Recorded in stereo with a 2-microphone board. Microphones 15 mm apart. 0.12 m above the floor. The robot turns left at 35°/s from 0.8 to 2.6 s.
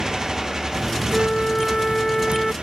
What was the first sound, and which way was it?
A motorcycle, 45° right.